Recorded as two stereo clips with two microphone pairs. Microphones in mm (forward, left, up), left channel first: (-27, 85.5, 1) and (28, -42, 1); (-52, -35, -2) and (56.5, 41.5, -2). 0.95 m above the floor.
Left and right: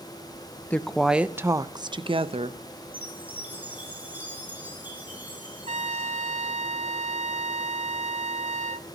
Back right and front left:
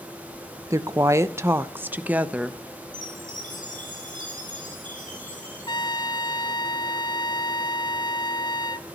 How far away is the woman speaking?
About 0.8 m.